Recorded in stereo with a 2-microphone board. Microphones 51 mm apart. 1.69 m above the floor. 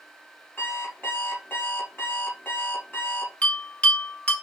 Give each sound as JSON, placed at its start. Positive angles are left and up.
{"t": 0.6, "sound": "an alarm clock", "side_deg": 45, "distance_m": 2.5}
{"t": 3.4, "sound": "a bell", "side_deg": 30, "distance_m": 1.4}